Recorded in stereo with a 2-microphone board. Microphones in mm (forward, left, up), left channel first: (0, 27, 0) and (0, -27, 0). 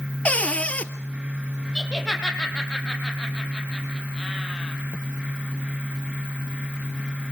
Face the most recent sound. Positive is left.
turn(degrees=10)  # may be behind; listen again after turning